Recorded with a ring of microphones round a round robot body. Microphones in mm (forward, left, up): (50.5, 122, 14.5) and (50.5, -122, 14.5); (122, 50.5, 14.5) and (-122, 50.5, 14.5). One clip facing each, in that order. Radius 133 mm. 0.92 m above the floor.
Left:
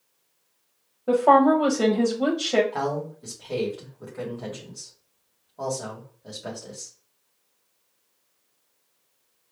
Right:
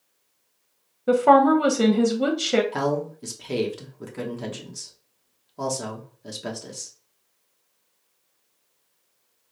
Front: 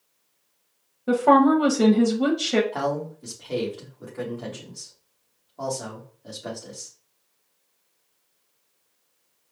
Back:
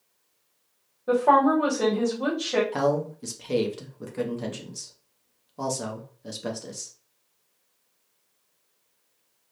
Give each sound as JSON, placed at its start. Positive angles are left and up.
{"t": 1.1, "sound": "a woman speaking", "azimuth_deg": -40, "distance_m": 0.8}
{"t": 2.7, "sound": "a man speaking", "azimuth_deg": -135, "distance_m": 0.8}